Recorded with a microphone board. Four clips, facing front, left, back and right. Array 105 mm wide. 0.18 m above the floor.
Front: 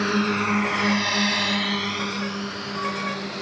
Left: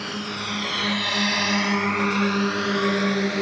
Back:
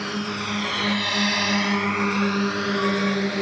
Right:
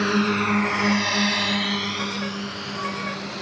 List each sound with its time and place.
0.0 s a drone: 55° right; by 3.4 s 125° left